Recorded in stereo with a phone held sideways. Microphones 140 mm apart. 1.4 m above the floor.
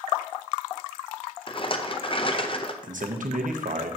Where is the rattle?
35° left (ahead or behind), 0.7 m.